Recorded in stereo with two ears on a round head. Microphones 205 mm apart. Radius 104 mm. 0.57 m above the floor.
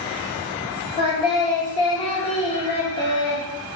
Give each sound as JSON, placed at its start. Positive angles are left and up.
{"t": 1.0, "sound": "singing", "side_deg": 20, "distance_m": 0.8}